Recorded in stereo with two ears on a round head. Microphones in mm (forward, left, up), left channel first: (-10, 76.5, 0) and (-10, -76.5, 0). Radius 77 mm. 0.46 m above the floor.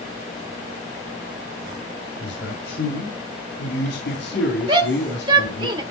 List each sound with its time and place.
2.2 s a man speaking: 75° left (ahead or behind), 6.5 m; by 5.7 s 70° left (ahead or behind), 4.5 m
4.7 s a shout: 25° right (ahead or behind), 1.8 m